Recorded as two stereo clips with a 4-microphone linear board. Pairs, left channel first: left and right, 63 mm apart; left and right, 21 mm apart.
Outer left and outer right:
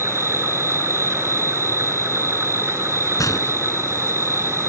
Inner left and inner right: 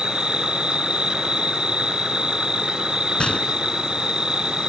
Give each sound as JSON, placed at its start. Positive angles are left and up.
{"t": 0.0, "sound": "an insect", "side_deg": -50}
{"t": 3.2, "sound": "a gunshot", "side_deg": 60}